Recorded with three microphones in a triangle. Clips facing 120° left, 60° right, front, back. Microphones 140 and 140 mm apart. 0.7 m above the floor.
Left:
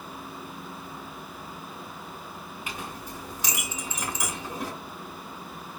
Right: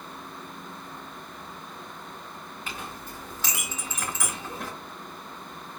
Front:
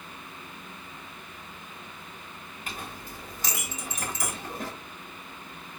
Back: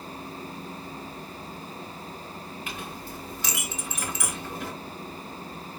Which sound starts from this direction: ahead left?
A clink, at 2.7 s.